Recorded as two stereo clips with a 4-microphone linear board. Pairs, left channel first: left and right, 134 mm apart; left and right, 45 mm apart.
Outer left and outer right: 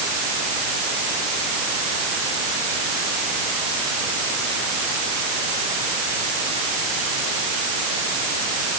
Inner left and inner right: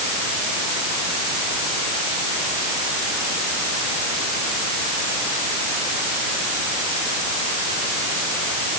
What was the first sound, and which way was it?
Only background noise.